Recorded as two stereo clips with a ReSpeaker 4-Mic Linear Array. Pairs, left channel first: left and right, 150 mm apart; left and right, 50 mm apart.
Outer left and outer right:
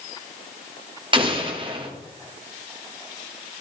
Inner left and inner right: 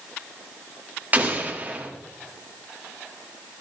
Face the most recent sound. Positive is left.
turn(degrees=-30)  # may be behind; listen again after turning